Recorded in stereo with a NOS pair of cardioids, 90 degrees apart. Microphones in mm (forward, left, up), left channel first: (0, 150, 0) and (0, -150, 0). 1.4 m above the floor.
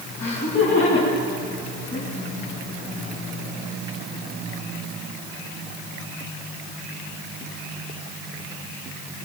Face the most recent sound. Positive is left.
turn(degrees=45)